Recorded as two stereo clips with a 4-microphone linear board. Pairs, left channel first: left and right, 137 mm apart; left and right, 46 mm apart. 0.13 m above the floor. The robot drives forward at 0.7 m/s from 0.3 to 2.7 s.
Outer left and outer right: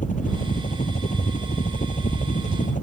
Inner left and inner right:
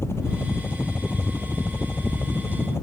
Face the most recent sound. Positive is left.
turn(degrees=65)  # may be behind; listen again after turning